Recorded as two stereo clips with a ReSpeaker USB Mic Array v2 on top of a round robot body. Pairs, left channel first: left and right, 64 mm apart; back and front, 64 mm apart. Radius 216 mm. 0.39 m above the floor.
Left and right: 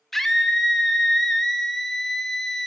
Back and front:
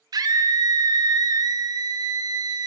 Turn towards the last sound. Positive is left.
turn(degrees=5)